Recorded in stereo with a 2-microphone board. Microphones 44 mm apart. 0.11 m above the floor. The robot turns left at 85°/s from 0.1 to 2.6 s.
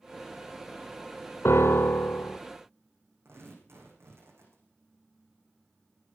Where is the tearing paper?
65° right (ahead or behind), 6.5 m.